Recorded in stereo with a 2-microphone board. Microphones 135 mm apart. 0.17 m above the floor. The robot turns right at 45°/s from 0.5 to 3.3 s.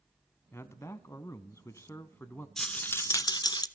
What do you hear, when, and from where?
0.5 s a man speaking: 20° left (ahead or behind), 1.0 m; by 2.5 s 15° left (ahead or behind), 1.0 m
2.6 s a rattle: 5° left, 0.6 m; by 3.7 s 40° left, 0.6 m